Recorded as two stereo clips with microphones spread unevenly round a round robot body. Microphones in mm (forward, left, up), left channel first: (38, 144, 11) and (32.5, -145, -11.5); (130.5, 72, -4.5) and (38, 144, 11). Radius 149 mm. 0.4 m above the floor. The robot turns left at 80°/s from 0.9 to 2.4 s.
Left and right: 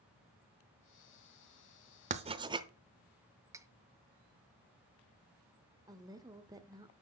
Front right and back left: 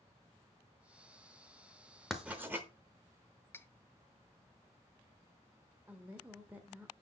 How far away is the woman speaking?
About 0.8 m.